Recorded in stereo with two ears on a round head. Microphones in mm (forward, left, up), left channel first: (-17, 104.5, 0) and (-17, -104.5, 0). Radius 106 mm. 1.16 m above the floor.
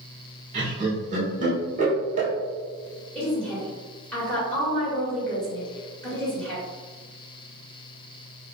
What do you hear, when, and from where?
0.5 s laughter: 35° right (ahead or behind), 1.6 m
3.1 s a woman speaking: 5° left (ahead or behind), 1.4 m